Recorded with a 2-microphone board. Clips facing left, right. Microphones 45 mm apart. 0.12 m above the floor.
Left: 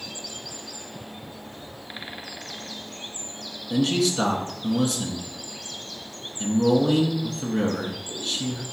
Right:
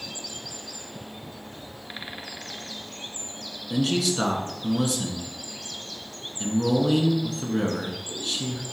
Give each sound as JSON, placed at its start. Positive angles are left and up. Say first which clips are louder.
{"t": 3.7, "sound": "a man speaking", "louder": "left 2 dB", "side_deg": 0, "distance_m": 1.1}